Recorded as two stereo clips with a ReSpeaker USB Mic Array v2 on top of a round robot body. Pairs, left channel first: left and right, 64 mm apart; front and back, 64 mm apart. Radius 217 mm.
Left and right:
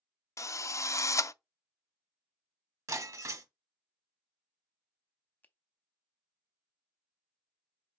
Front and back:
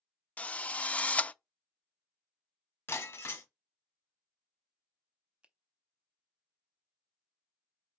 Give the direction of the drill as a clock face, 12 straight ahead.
10 o'clock.